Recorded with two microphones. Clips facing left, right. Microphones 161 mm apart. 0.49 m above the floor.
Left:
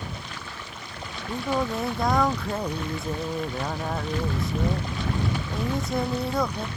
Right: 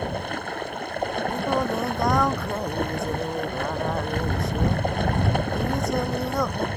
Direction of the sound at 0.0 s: 55° right (ahead or behind).